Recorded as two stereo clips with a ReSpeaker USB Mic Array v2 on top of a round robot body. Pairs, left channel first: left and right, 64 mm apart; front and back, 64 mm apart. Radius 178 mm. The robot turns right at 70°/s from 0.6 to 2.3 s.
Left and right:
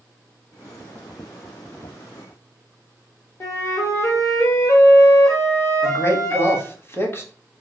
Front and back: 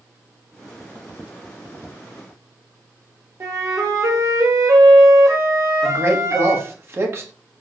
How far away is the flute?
About 1.0 m.